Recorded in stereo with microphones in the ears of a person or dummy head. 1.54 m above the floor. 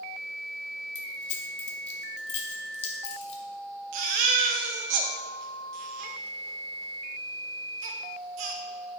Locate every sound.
0.9 s keys jangling: 40° left (ahead or behind), 1.3 m
3.9 s a baby crying: 40° right (ahead or behind), 0.6 m